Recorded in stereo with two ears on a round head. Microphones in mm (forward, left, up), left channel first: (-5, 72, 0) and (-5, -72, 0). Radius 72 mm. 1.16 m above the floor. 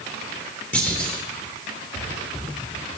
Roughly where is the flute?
I don't hear a flute.